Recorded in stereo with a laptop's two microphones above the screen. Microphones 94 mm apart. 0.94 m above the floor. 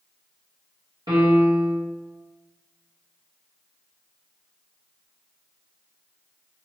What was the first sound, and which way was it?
A piano, 55° right (ahead or behind).